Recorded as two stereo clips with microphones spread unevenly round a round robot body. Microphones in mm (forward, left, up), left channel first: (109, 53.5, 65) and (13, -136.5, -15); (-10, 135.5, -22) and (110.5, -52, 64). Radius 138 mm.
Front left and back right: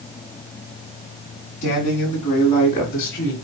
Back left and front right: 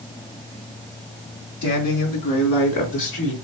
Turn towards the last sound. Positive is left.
turn(degrees=130)